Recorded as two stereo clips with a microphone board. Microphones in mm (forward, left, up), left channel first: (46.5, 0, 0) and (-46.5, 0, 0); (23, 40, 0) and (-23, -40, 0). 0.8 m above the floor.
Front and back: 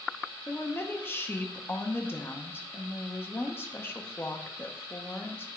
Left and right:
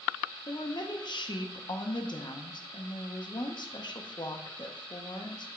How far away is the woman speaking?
About 0.8 m.